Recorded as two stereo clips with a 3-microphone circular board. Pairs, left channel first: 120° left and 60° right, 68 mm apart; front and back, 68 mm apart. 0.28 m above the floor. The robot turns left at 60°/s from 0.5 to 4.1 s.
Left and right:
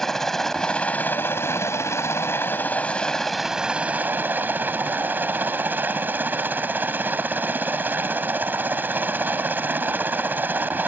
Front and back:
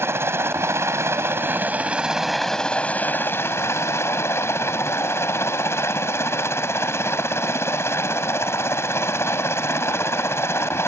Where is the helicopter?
160° right; by 10.9 s 15° right.